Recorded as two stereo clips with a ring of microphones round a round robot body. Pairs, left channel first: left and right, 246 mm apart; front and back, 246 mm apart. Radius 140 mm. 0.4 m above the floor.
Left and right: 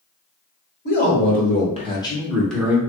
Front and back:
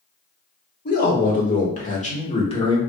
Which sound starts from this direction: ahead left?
A man speaking, at 0.8 s.